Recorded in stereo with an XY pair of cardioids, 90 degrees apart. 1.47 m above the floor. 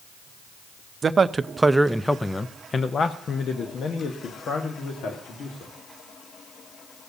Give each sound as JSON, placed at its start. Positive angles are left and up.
{"t": 1.0, "sound": "a man speaking", "azimuth_deg": -45, "distance_m": 0.7}